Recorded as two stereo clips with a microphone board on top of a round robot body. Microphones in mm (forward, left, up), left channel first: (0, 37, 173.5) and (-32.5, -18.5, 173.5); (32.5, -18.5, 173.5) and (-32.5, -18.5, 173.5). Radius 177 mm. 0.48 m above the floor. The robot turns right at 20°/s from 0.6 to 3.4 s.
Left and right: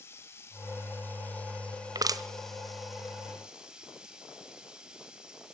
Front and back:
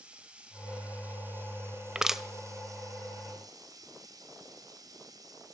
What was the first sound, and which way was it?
Running water, 105° left.